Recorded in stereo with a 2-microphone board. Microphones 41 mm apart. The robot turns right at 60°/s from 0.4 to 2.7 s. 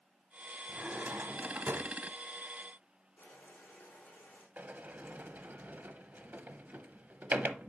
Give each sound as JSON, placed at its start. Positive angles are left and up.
{"t": 0.7, "sound": "a drawer", "azimuth_deg": -150, "distance_m": 0.9}
{"t": 3.2, "sound": "boiling", "side_deg": 60, "distance_m": 5.0}
{"t": 4.6, "sound": "a sliding door", "side_deg": -55, "distance_m": 0.7}